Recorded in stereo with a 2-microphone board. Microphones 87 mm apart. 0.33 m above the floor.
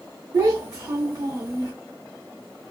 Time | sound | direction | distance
0.3 | a child speaking | 40° right (ahead or behind) | 1.0 m